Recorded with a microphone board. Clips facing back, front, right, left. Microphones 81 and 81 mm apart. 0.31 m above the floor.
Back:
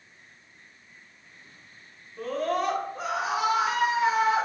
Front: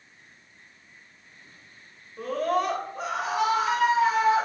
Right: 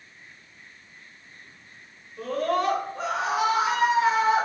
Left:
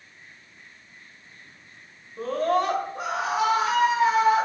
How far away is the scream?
About 1.3 m.